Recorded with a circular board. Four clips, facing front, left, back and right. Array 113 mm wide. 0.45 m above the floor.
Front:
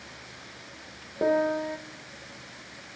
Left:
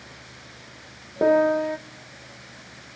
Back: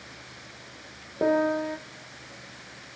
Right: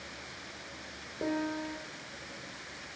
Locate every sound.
1.2 s a piano: 100° left, 0.9 m